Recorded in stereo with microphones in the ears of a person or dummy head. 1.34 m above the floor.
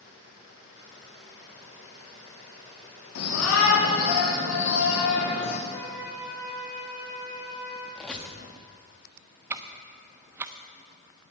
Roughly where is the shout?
Left.